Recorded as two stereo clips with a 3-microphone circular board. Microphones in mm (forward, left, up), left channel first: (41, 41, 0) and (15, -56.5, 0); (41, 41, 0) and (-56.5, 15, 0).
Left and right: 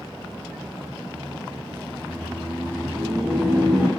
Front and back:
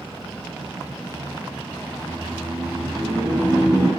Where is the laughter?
175° left, 1.5 m.